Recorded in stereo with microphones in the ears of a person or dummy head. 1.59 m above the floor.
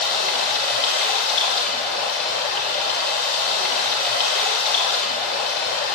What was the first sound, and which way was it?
Running water, 50° left (ahead or behind).